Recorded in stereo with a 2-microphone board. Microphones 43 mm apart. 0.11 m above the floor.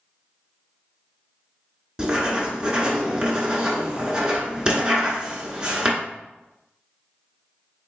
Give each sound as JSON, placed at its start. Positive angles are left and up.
{"t": 2.0, "sound": "writing", "side_deg": -20, "distance_m": 1.1}